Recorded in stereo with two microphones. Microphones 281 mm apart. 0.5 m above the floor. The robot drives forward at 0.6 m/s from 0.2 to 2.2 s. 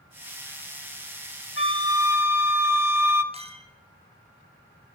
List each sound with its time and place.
1.6 s a flute: 40° left (ahead or behind), 0.8 m; by 3.2 s 65° left (ahead or behind), 0.6 m
3.3 s a clink: 20° right (ahead or behind), 1.1 m